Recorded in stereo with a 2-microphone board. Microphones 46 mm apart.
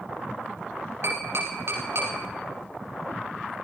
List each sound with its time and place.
1.0 s tapping: 65° right (ahead or behind), 6.5 m